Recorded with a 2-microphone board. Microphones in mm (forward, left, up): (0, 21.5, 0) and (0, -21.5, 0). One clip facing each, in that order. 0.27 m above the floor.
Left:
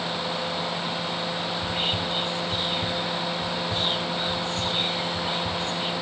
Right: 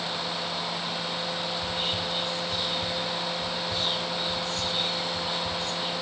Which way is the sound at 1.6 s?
40° left (ahead or behind).